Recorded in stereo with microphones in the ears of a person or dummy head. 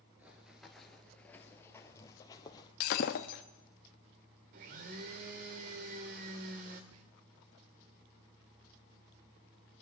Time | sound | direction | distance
0.2 | running footsteps | 5° right (ahead or behind) | 1.6 m
2.8 | breaking glass | 45° left (ahead or behind) | 1.3 m
4.5 | a blender | 30° right (ahead or behind) | 1.4 m
6.9 | whispering | 75° right (ahead or behind) | 1.4 m